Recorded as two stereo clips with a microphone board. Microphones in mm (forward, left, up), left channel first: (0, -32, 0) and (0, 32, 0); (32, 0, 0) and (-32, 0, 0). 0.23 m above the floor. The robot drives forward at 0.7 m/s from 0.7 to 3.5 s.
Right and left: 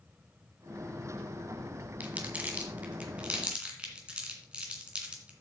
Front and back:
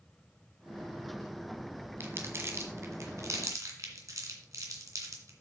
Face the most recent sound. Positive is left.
turn(degrees=160)